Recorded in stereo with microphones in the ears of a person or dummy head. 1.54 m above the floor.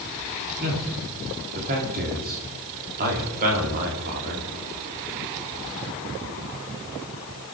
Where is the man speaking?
45° right (ahead or behind), 4 m.